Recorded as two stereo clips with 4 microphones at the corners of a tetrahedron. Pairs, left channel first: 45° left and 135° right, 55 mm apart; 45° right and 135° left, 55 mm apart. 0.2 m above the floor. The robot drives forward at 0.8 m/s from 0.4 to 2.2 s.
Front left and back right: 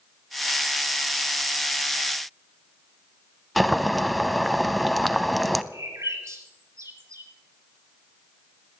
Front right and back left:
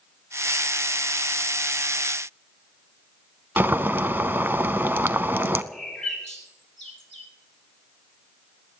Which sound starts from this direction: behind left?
Boiling, at 3.6 s.